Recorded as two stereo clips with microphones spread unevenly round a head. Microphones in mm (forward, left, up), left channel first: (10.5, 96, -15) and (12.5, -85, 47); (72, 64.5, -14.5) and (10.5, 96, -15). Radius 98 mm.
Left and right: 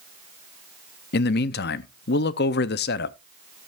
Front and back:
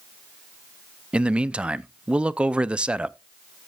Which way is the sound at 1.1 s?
90° left.